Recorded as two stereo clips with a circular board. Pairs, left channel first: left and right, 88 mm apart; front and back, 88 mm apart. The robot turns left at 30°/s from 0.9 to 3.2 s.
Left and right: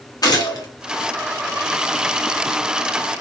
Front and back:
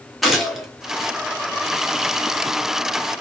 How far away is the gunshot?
About 0.7 m.